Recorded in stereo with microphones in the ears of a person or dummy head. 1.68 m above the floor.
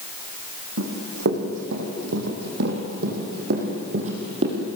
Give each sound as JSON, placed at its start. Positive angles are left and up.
{"t": 0.8, "sound": "running footsteps", "side_deg": -70, "distance_m": 5.0}